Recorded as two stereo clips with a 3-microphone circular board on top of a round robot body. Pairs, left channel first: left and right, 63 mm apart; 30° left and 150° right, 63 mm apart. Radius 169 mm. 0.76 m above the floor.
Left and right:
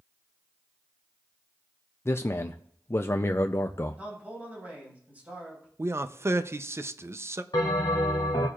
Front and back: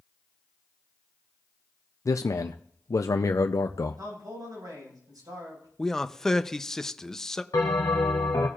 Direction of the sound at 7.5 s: 70° left.